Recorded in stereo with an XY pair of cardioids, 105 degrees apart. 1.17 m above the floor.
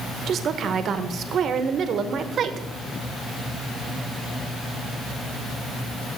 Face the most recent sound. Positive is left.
turn(degrees=-60)